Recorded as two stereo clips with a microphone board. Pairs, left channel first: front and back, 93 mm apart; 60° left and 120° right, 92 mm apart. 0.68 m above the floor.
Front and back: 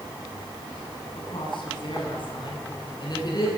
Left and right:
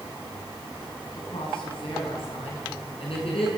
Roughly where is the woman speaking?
Ahead left.